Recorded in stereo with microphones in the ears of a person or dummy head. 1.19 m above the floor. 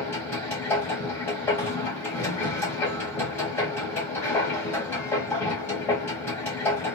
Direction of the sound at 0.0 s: 15° left (ahead or behind).